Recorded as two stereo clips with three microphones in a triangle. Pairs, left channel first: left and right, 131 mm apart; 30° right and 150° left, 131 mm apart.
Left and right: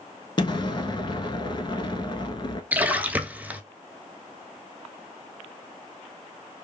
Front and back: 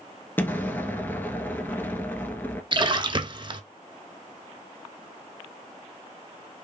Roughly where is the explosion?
Ahead left.